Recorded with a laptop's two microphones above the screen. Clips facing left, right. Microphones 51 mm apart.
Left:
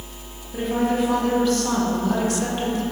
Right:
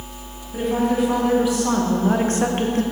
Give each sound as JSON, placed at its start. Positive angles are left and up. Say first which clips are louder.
{"t": 0.5, "sound": "a woman speaking", "louder": "right 2 dB", "side_deg": 0, "distance_m": 2.0}